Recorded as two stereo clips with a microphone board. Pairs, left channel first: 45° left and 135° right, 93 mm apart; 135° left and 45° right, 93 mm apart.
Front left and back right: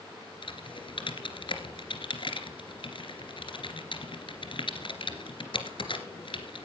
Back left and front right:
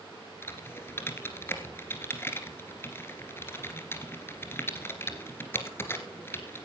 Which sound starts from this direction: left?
Typing on a keyboard, at 0.4 s.